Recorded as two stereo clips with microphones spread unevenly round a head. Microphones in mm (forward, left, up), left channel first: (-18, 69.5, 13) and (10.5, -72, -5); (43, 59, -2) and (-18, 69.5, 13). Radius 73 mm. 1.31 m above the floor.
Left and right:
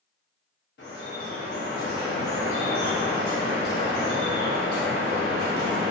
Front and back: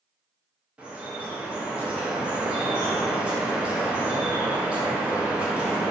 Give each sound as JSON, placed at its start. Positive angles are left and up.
{"t": 0.8, "sound": "dripping", "azimuth_deg": 90, "distance_m": 1.0}